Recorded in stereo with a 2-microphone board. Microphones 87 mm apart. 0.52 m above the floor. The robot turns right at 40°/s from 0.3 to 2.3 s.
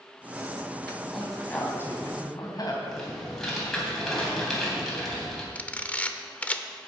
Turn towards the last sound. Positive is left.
turn(degrees=15)  # may be behind; listen again after turning